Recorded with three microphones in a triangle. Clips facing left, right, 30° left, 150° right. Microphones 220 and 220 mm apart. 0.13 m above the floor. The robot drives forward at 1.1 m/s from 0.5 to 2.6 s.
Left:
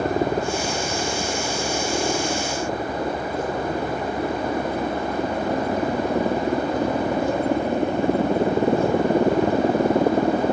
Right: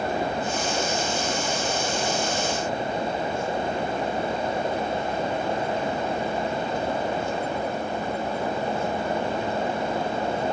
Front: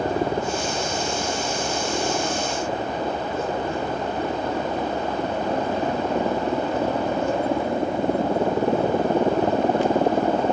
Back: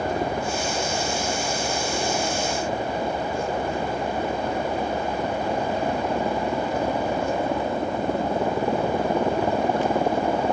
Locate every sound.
0.0 s a helicopter: 85° left; by 10.5 s 95° left